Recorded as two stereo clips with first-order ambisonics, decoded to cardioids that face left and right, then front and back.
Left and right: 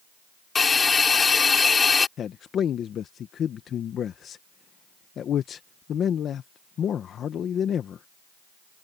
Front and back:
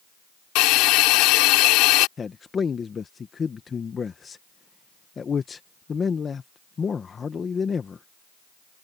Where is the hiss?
20° left.